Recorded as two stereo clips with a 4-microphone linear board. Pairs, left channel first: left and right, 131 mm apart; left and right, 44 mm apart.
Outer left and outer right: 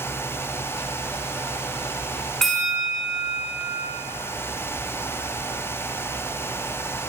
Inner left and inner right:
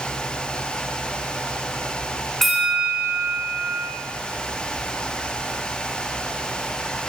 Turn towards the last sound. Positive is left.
turn(degrees=5)  # may be behind; listen again after turning